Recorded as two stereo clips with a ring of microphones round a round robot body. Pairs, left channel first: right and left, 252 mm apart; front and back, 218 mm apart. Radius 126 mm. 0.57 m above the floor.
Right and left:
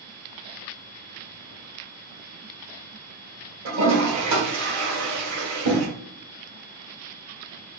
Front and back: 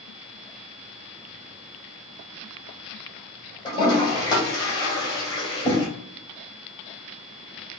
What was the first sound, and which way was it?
A toilet flushing, 70° left.